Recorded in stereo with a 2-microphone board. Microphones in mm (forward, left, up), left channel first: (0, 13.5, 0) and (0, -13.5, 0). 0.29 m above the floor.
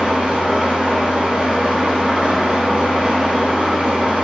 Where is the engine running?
50° right (ahead or behind), 1.2 m.